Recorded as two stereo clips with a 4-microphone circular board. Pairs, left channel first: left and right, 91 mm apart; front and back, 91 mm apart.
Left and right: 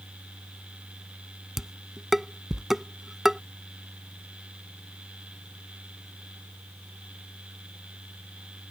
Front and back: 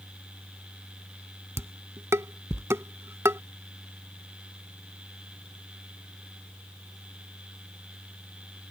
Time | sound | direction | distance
1.6 | dishes clattering | 175° right | ?